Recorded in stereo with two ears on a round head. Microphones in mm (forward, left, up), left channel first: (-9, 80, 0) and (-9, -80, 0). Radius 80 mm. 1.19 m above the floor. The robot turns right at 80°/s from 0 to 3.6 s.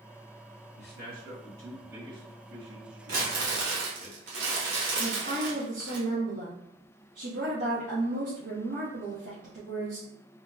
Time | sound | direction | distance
0.8 | a man speaking | 80° left | 1.6 m
3.1 | crumpling | 135° right | 1.3 m
5.0 | a woman speaking | 55° right (ahead or behind) | 1.1 m